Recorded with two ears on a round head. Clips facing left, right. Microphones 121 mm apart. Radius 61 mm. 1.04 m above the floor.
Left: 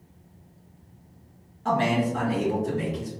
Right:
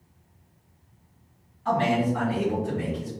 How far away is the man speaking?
About 1.7 m.